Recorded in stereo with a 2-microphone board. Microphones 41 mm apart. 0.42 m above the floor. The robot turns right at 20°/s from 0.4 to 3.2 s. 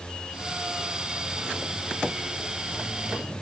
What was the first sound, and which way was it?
Only background noise.